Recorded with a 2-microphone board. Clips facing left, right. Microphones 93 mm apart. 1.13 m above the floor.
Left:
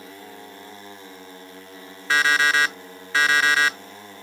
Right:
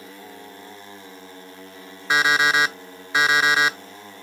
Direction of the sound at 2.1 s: 20° right (ahead or behind).